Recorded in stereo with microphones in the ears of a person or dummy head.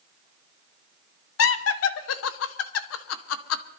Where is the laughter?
80° left, 1.3 m.